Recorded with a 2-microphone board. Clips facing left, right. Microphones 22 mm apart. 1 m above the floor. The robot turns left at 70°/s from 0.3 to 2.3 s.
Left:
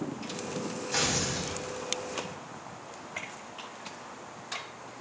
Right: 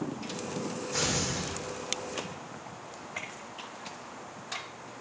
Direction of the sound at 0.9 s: 60° left.